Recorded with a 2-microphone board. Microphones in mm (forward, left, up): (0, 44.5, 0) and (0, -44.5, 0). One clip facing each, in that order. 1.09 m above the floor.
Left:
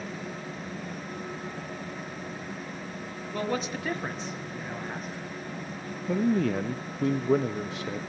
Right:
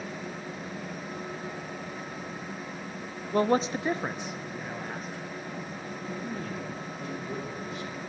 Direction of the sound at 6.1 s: 80° left.